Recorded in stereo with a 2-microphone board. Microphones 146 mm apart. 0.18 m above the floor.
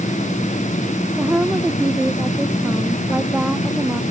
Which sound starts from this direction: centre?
A woman speaking, at 1.2 s.